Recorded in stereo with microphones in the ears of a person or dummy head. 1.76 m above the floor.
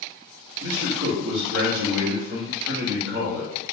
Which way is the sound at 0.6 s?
65° right (ahead or behind).